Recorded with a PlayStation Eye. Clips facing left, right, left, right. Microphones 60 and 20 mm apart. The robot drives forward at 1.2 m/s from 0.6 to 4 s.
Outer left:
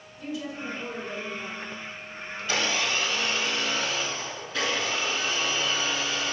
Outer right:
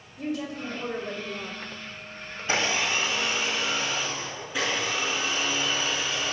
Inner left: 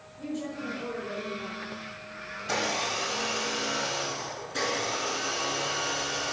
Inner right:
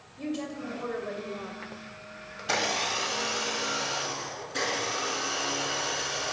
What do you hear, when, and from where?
0.2 s a woman speaking: 55° right (ahead or behind), 1.9 m
2.4 s a blender: 30° right (ahead or behind), 1.1 m; by 6.3 s 10° right (ahead or behind), 3 m